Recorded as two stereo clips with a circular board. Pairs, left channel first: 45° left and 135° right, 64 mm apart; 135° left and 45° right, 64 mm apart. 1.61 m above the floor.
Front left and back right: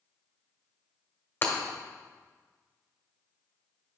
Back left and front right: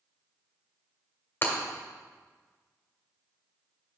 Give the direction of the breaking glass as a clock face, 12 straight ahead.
9 o'clock.